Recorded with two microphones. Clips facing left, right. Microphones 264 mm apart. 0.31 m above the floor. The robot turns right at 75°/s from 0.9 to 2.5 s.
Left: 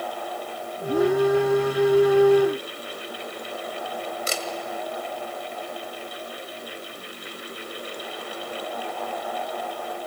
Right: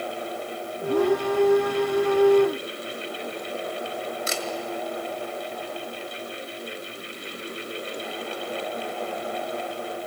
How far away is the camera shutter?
About 1.8 m.